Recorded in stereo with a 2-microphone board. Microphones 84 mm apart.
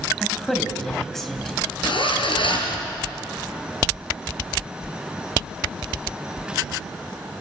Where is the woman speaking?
5° left (ahead or behind), 3 m.